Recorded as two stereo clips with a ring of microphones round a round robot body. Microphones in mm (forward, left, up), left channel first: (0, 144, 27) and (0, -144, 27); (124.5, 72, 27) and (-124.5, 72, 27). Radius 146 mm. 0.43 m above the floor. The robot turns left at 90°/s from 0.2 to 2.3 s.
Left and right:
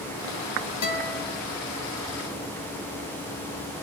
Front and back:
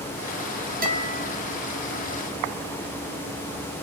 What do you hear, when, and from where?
0.8 s a guitar: 125° left, 3.5 m; by 1.4 s 70° left, 3.5 m